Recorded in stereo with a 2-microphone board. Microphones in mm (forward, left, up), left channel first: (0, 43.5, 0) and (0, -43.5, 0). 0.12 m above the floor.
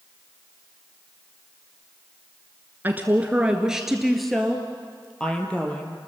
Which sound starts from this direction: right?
A woman speaking, at 2.8 s.